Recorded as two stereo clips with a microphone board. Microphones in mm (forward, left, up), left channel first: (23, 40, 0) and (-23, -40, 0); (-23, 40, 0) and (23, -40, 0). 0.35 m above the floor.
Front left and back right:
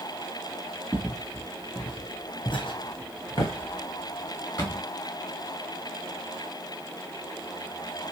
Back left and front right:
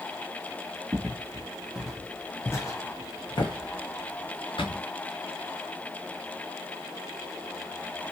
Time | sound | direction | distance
0.9 | footsteps | 10° right | 1.1 m